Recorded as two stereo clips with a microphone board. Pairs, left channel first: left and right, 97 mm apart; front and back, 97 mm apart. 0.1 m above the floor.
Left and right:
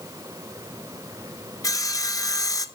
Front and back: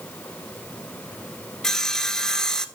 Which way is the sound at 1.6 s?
80° left.